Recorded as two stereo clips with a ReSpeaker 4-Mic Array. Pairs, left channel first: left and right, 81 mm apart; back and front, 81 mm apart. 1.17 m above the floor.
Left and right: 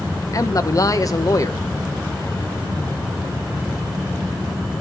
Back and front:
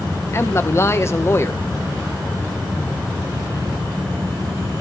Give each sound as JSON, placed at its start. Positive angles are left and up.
{"t": 0.3, "sound": "a man speaking", "azimuth_deg": 130, "distance_m": 1.2}